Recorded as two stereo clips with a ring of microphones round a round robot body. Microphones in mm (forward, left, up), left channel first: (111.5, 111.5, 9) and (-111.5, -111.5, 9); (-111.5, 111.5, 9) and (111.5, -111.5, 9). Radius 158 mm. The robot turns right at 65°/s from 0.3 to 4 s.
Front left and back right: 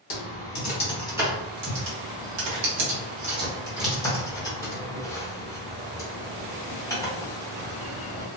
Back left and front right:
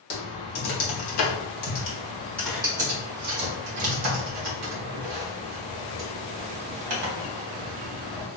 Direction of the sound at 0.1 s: 85° left.